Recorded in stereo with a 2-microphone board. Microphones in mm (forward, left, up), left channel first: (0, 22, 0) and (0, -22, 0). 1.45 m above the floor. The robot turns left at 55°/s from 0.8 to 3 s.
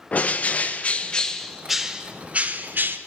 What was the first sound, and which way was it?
A bird, 45° left.